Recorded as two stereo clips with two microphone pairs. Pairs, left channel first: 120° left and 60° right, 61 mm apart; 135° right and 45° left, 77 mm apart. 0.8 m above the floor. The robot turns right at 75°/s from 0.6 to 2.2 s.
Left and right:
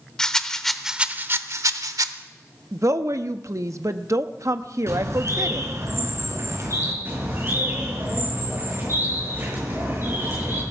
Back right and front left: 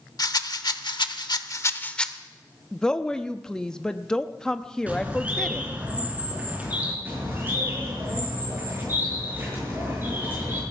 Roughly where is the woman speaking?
Ahead right.